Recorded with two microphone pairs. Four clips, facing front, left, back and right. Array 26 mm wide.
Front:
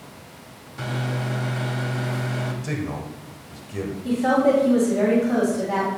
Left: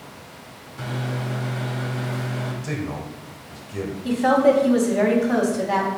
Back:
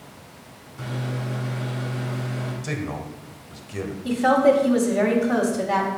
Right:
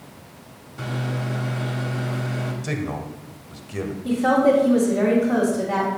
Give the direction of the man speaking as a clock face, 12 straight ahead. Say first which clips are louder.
Right 1 dB, front 1 dB; 4 o'clock.